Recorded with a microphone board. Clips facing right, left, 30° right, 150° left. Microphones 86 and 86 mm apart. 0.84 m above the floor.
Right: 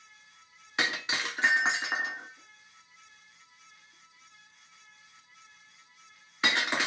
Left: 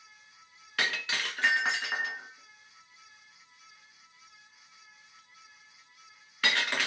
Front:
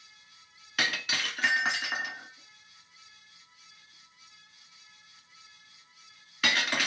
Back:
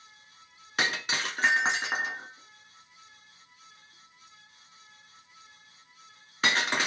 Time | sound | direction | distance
0.8 | breaking glass | 155° right | 1.1 m